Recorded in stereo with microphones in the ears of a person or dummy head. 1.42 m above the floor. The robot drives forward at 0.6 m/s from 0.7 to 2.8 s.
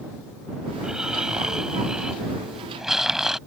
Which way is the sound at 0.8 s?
10° right (ahead or behind).